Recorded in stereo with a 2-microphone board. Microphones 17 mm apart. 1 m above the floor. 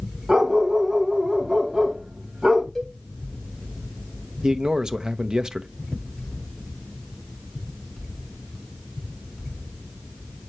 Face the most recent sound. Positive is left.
turn(degrees=-45)  # may be behind; listen again after turning